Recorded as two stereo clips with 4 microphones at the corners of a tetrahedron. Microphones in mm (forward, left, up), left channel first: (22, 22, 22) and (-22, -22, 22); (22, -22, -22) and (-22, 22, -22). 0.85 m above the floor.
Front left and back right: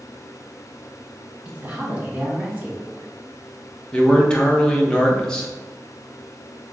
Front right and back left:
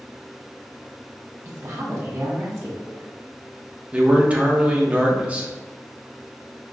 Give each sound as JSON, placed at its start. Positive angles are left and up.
{"t": 1.4, "sound": "a woman speaking", "azimuth_deg": 160, "distance_m": 1.8}
{"t": 3.9, "sound": "a man speaking", "azimuth_deg": 105, "distance_m": 0.8}